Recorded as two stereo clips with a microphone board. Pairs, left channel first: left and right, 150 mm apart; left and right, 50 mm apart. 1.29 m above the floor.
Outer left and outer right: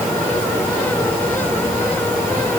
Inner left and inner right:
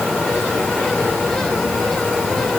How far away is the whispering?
I don't hear whispering.